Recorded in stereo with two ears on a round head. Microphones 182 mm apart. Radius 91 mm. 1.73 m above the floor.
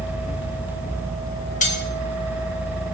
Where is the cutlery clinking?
40° left (ahead or behind), 1.8 m.